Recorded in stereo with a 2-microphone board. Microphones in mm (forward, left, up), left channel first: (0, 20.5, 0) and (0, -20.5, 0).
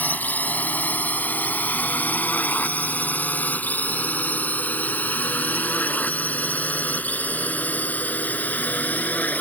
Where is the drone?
40° left (ahead or behind).